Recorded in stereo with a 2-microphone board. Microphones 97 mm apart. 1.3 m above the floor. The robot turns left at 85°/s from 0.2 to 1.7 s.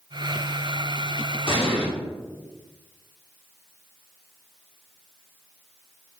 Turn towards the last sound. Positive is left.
turn(degrees=65)  # may be behind; listen again after turning